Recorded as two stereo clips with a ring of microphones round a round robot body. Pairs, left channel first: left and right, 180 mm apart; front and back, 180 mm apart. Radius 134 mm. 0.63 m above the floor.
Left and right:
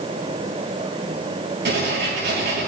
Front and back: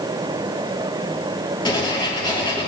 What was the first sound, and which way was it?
Writing, 65° right.